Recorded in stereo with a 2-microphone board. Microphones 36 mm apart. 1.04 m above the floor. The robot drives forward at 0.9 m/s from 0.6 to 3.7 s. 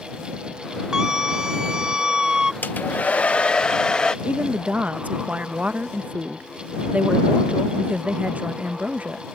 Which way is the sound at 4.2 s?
45° right (ahead or behind).